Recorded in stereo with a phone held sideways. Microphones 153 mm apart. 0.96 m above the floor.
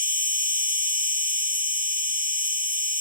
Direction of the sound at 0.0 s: 70° right (ahead or behind).